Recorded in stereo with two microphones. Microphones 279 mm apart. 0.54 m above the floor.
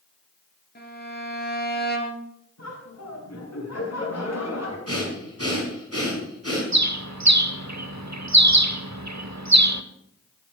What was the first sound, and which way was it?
A violin, 35° left (ahead or behind).